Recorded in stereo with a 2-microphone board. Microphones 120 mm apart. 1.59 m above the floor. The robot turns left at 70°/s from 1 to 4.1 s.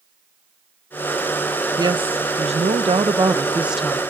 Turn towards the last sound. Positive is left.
turn(degrees=160)